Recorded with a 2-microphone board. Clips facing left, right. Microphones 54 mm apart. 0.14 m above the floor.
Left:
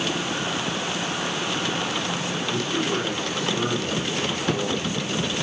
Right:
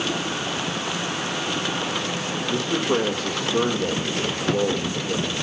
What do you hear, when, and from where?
2.5 s a man speaking: 75° right (ahead or behind), 5 m